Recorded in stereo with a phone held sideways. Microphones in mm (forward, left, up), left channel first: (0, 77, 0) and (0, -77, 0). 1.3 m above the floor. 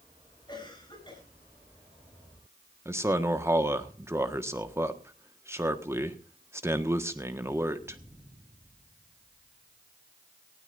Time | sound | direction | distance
0.5 | a cough | 30° left (ahead or behind) | 8.5 m
2.9 | a man speaking | 15° right (ahead or behind) | 1.5 m